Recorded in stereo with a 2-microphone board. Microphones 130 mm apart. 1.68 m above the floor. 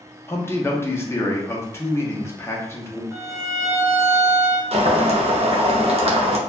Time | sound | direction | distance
0.3 | a man speaking | 20° left (ahead or behind) | 0.6 m
3.1 | a violin | 25° right (ahead or behind) | 1.2 m
4.7 | boiling | 50° right (ahead or behind) | 0.5 m